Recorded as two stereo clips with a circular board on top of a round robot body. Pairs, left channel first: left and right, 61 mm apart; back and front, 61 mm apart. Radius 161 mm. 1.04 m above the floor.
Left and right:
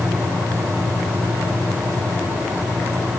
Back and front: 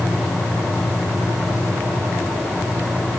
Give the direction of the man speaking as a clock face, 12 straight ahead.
No man speaking in this recording.